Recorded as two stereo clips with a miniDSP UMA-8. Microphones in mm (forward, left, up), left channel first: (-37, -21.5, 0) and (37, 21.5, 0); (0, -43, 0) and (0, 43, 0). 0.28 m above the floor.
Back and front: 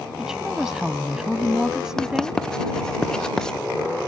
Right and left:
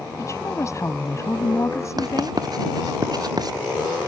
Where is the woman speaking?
50° right.